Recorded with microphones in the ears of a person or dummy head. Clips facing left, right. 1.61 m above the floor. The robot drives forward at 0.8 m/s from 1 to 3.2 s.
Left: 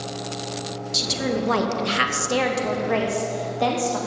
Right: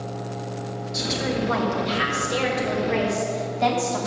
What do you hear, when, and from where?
0.9 s a woman speaking: 45° left (ahead or behind), 1.3 m; by 4.0 s 50° left (ahead or behind), 1.3 m